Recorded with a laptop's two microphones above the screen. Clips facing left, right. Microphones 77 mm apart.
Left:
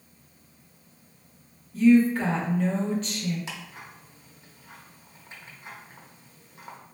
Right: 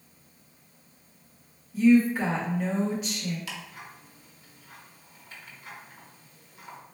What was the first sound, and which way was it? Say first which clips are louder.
A woman speaking: left 1 dB; 10° right (ahead or behind).